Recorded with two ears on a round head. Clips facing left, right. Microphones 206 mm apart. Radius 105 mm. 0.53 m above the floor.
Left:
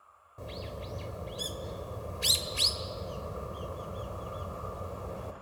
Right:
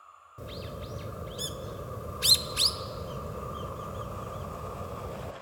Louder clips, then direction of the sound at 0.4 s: Right 1 dB; 15° right (ahead or behind).